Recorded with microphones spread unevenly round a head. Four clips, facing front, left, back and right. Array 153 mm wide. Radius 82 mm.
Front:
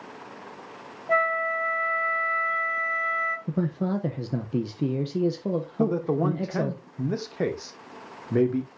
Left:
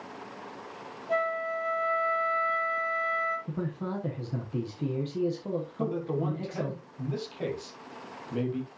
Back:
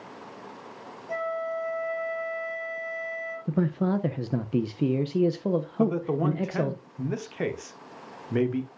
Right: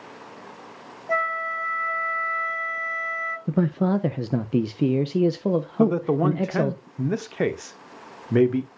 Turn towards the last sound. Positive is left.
turn(degrees=-65)